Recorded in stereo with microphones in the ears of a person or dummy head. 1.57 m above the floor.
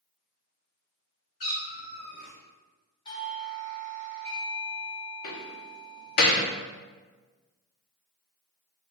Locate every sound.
1.4 s a cat meowing: 40° left (ahead or behind), 1.4 m
3.0 s a doorbell: 30° left (ahead or behind), 1.5 m
5.2 s a door slam: 45° left (ahead or behind), 0.6 m